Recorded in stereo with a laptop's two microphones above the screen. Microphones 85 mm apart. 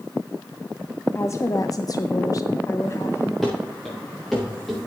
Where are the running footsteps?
Centre (ahead or behind), 6.5 m; by 4.8 s 5° right (ahead or behind), 7.5 m.